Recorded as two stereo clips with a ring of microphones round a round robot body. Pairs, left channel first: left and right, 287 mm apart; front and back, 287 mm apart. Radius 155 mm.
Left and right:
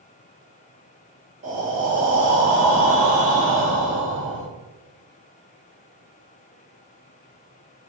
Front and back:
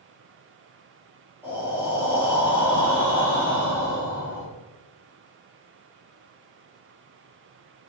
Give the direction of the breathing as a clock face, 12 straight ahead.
3 o'clock.